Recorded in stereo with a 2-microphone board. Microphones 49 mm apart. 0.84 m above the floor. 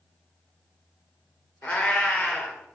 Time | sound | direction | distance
1.6 | a cat meowing | 35° left (ahead or behind) | 0.8 m